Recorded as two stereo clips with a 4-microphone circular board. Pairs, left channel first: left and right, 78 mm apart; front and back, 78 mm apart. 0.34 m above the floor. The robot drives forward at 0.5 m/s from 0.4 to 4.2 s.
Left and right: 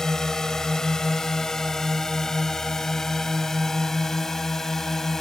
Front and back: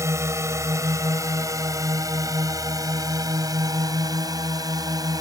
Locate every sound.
0.0 s a drone: 170° left; by 5.2 s 175° left